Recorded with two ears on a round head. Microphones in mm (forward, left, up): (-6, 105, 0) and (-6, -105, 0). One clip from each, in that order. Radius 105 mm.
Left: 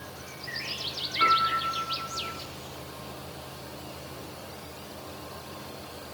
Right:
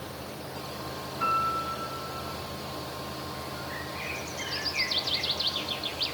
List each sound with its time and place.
1.2 s a piano: 55° left (ahead or behind), 6.5 m